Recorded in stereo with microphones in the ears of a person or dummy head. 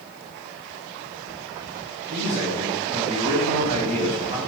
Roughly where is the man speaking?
Right.